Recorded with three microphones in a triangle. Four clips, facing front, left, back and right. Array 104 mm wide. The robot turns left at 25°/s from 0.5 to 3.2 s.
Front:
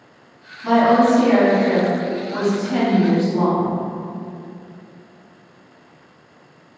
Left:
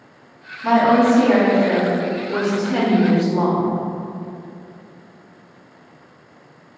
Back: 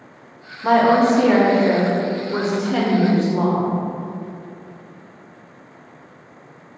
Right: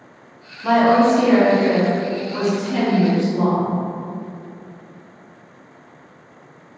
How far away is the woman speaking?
About 0.9 m.